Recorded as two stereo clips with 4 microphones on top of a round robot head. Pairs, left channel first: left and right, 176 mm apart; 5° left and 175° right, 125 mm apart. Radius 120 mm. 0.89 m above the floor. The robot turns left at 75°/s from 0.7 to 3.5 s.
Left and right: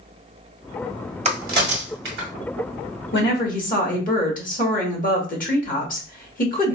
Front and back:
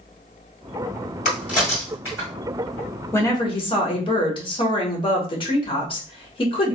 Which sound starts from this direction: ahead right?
A crack, at 1.2 s.